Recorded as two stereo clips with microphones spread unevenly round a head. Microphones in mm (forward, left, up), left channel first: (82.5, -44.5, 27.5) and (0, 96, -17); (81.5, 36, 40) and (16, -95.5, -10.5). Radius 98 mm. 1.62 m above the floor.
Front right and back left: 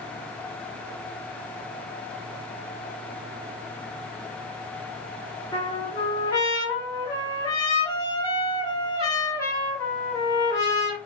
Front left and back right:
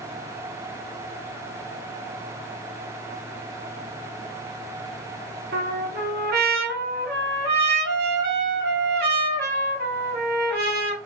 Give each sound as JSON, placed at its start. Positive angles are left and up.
{"t": 5.5, "sound": "a trumpet", "azimuth_deg": -135, "distance_m": 1.2}